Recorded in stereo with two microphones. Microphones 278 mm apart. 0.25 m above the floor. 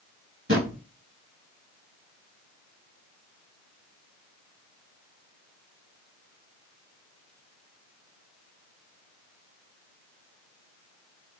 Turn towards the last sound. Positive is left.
turn(degrees=-50)  # may be behind; listen again after turning